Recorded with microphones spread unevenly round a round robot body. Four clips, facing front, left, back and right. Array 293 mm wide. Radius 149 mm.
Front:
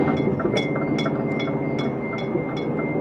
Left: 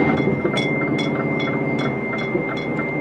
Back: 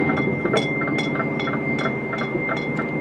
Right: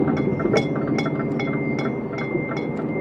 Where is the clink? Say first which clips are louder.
Even, even; 105° right, 0.6 m.